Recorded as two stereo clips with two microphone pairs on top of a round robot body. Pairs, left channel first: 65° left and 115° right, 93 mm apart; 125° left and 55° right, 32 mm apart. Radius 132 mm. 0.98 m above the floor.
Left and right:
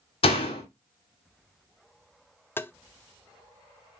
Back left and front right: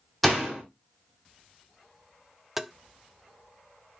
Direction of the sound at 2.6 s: 5° left.